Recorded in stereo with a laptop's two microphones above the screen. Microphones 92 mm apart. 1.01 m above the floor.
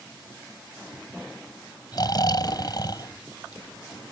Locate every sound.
1.9 s snoring: 50° left (ahead or behind)